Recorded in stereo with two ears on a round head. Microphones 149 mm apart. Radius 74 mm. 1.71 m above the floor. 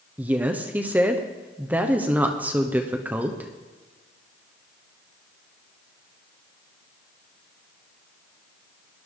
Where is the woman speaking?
10° right (ahead or behind), 0.9 m.